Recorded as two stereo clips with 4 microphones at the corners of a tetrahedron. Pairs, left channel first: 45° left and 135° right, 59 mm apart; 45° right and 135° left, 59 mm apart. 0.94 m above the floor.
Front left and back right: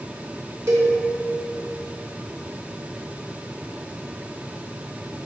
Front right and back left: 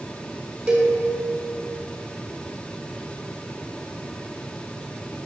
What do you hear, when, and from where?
0.7 s a cowbell: 155° right, 1.3 m